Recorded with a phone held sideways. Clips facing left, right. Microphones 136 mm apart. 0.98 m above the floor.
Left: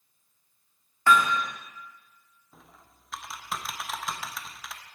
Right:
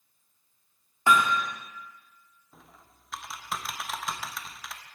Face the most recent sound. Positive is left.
turn(degrees=0)  # may be behind; listen again after turning